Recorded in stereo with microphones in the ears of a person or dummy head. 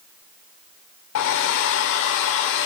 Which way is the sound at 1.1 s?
60° left (ahead or behind).